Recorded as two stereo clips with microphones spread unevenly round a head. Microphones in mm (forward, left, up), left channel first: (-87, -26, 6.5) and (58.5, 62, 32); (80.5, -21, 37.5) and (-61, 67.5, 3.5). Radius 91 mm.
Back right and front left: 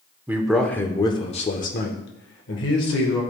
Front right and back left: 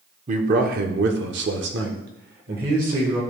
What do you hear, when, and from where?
0.3 s a man speaking: 100° left, 0.9 m; by 3.2 s 160° right, 1.5 m